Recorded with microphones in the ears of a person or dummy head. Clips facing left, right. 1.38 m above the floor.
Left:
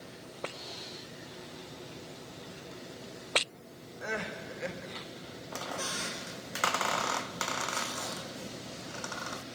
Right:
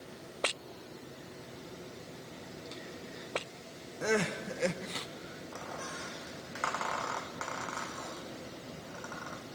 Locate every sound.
4.0 s crying: 55° right (ahead or behind), 0.8 m
5.5 s a squeak: 55° left (ahead or behind), 0.8 m